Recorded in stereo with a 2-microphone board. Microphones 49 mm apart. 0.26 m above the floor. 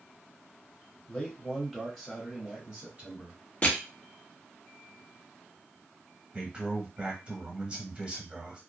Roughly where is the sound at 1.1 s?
Left.